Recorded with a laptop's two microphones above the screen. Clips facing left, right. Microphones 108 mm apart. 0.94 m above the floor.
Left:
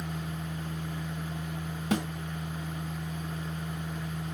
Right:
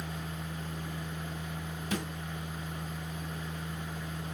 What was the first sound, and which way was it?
A machine running, 60° left (ahead or behind).